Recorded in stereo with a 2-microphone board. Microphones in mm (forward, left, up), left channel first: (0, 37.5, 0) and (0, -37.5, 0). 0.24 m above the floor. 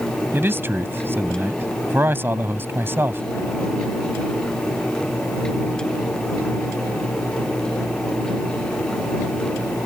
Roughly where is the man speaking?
Right.